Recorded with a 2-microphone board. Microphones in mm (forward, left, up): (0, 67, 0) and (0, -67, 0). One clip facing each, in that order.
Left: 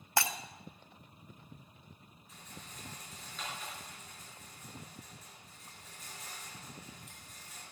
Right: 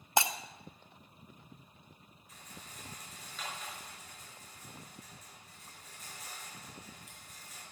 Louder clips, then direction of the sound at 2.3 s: Left 1 dB; centre (ahead or behind).